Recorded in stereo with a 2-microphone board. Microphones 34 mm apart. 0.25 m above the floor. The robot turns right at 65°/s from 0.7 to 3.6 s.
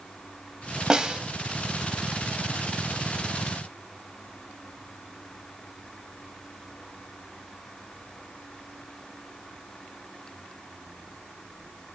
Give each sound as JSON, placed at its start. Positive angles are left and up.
{"t": 0.9, "sound": "a snare drum", "side_deg": -20, "distance_m": 0.5}